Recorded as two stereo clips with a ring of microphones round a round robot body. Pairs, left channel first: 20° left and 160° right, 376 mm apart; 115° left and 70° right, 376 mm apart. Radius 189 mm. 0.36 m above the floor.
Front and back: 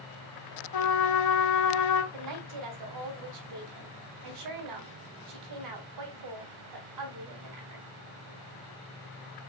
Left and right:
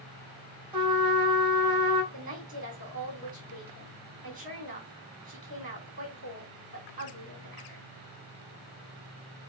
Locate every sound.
0.7 s a trumpet: 10° left, 1.7 m
2.1 s a woman speaking: 135° right, 4 m